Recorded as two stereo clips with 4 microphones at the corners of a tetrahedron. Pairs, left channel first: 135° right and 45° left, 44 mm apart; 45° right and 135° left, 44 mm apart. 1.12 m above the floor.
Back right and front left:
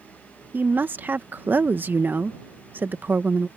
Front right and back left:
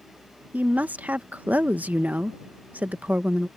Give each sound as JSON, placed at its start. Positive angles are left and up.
{"t": 0.5, "sound": "a woman speaking", "azimuth_deg": 85}